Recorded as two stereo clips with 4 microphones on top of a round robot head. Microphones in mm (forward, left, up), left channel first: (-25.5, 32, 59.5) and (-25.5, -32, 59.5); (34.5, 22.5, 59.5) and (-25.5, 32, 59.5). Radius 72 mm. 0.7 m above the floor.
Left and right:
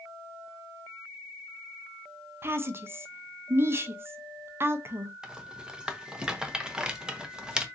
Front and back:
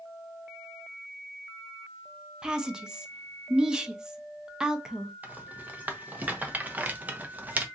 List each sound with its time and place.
2.4 s a woman speaking: 115° right, 0.7 m
5.2 s a rattle: 155° right, 0.8 m